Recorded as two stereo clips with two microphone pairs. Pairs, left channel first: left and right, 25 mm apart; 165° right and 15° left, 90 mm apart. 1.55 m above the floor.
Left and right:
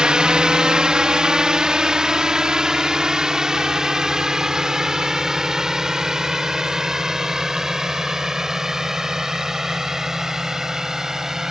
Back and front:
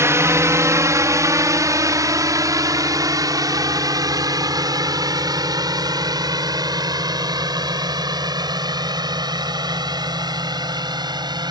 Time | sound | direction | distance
0.0 | a drone | 40° right | ?